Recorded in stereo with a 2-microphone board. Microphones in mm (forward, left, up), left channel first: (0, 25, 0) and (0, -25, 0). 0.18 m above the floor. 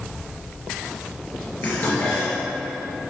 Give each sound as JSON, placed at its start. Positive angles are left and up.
{"t": 1.6, "sound": "dishes clattering", "side_deg": 45, "distance_m": 2.0}